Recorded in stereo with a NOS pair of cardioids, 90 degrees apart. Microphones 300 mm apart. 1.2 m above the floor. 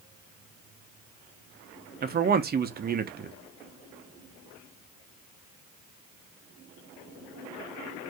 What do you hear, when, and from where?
2.0 s a man speaking: 30° right, 0.7 m